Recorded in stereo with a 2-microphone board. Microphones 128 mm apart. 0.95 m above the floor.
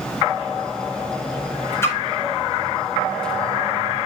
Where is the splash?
20° left (ahead or behind), 4.5 m.